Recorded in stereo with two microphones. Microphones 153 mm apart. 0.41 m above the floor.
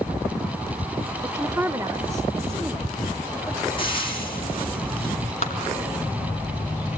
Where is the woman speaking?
20° right (ahead or behind), 0.8 m; by 3.7 s 15° right (ahead or behind), 1.9 m.